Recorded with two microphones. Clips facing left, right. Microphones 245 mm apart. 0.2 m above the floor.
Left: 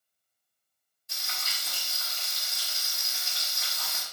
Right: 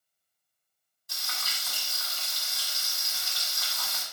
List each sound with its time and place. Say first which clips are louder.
1.1 s frying: even; 25° left (ahead or behind), 1.4 m